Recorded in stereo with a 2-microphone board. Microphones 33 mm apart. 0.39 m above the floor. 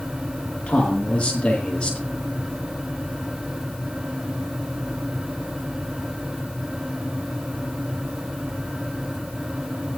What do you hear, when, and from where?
0.7 s a man speaking: 30° left (ahead or behind), 10 m